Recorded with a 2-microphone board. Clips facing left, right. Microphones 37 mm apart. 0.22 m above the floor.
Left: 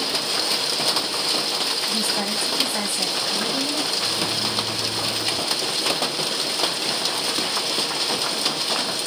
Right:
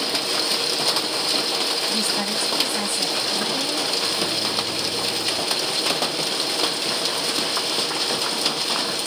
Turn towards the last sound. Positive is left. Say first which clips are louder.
# right 1 dB
turn(degrees=55)  # may be behind; listen again after turning